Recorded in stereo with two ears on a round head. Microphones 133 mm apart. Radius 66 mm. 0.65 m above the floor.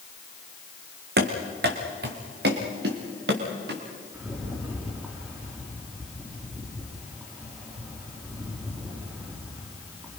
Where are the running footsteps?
75° right (ahead or behind), 2.5 m; by 3.8 s 80° right, 5 m.